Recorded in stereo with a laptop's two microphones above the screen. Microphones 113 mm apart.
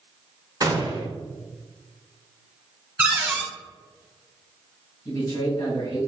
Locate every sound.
0.6 s a gunshot: 35° right (ahead or behind), 0.6 m
3.0 s a cupboard door: 10° right (ahead or behind), 1.5 m
5.0 s a man speaking: 40° left (ahead or behind), 1.8 m